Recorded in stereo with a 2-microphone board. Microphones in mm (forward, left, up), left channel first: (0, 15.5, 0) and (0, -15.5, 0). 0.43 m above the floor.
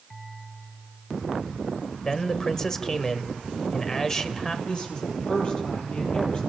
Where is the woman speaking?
35° left (ahead or behind), 10 m.